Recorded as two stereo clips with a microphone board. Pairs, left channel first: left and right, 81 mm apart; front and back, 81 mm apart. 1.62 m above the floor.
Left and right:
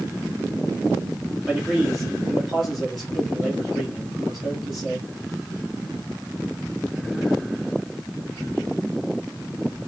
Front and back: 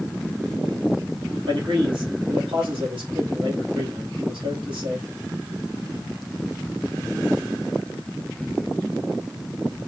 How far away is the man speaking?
About 1.8 m.